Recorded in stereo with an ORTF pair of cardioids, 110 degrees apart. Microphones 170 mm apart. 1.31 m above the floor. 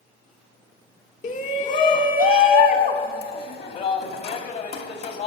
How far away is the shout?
About 1.5 m.